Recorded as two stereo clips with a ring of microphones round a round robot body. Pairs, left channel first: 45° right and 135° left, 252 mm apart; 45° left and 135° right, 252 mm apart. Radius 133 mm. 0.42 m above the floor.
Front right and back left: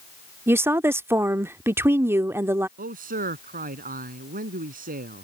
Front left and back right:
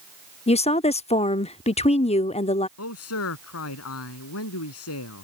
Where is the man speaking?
75° left.